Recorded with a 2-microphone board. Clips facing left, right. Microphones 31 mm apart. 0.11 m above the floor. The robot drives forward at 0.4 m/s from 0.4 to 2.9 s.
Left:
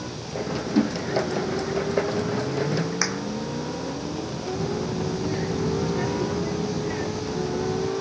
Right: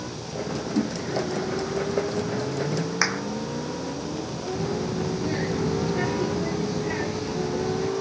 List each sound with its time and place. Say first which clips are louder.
0.8 s a whoosh: left 4 dB; 65° left (ahead or behind)
3.0 s a clap: right 2 dB; 20° right (ahead or behind)
4.5 s a child speaking: even; 20° right (ahead or behind)